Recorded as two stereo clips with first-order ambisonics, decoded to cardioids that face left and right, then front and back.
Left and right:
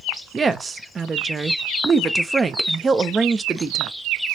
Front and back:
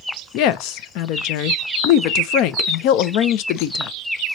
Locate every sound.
0.3 s a woman speaking: 20° right, 0.5 m